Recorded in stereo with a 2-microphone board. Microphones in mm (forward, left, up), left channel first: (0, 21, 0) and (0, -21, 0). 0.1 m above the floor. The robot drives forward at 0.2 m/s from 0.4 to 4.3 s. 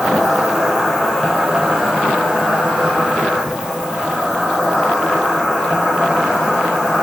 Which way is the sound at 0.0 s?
Centre (ahead or behind).